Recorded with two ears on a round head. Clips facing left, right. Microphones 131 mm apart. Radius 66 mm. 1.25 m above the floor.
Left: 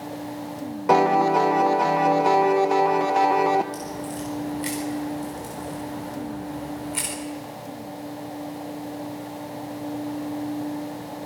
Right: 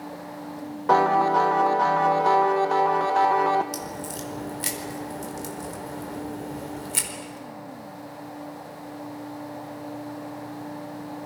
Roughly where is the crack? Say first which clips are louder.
Left 3 dB; right.